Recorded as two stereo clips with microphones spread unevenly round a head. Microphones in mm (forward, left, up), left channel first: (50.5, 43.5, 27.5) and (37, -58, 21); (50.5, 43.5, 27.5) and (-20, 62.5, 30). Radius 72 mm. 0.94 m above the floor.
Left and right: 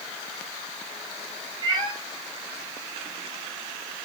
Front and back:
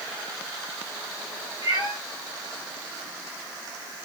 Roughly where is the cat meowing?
Ahead right.